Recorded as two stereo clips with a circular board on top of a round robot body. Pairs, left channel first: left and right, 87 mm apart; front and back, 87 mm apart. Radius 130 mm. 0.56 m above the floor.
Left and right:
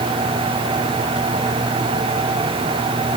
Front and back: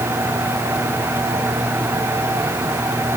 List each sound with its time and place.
Only background noise.